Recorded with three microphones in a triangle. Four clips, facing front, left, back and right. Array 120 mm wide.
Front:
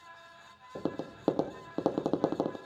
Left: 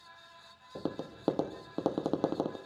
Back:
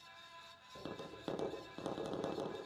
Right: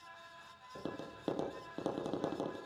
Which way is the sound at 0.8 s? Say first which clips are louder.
Left 6 dB, front 12 dB; 30° left.